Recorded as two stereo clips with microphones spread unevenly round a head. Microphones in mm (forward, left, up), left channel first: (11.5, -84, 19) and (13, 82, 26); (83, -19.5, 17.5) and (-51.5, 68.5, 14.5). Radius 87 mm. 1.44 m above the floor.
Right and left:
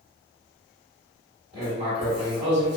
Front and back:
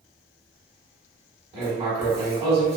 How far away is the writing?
About 1.6 m.